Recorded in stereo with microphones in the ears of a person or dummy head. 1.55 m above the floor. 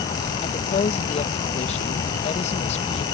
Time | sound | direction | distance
0.4 | a woman speaking | 35° left (ahead or behind) | ?